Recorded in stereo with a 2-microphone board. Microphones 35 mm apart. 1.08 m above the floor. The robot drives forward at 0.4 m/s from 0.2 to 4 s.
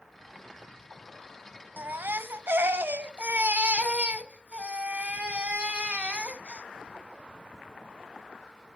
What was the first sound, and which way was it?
A baby crying, 60° right (ahead or behind).